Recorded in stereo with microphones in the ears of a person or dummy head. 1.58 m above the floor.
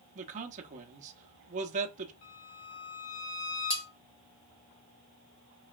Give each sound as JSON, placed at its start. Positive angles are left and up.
{"t": 0.1, "sound": "a man speaking", "side_deg": -40, "distance_m": 0.9}
{"t": 2.2, "sound": "a violin", "side_deg": 70, "distance_m": 1.8}
{"t": 3.7, "sound": "cutlery clinking", "side_deg": 15, "distance_m": 0.9}